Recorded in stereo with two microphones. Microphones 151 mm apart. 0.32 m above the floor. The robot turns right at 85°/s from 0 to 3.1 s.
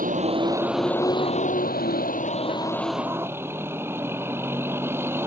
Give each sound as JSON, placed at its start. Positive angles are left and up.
{"t": 0.0, "sound": "a vehicle", "azimuth_deg": -70}